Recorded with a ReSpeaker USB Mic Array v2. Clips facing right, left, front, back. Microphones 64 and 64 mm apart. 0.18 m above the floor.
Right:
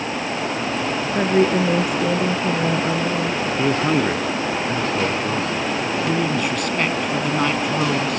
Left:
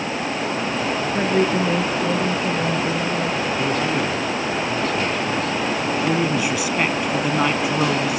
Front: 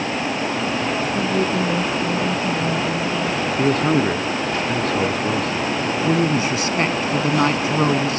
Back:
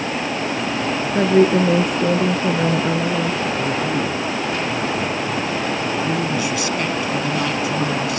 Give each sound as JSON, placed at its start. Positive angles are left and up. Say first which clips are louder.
{"t": 1.1, "sound": "a woman speaking", "louder": "right 3 dB, back 10 dB", "azimuth_deg": -170}
{"t": 3.6, "sound": "a man speaking", "louder": "right 5 dB, front 3 dB", "azimuth_deg": -30}
{"t": 6.0, "sound": "a woman speaking", "louder": "left 1 dB, front 2 dB", "azimuth_deg": 10}